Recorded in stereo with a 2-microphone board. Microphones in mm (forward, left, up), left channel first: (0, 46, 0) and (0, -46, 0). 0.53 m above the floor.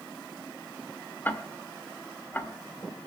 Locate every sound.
1.2 s ticking: 20° left (ahead or behind), 2 m